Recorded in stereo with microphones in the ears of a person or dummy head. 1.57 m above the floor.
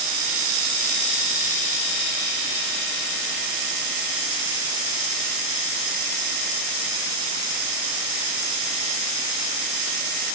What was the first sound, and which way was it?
Only background noise.